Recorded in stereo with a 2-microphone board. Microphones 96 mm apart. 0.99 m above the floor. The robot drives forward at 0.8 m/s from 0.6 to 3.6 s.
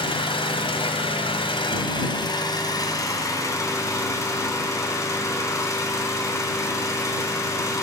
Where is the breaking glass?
No breaking glass in this recording.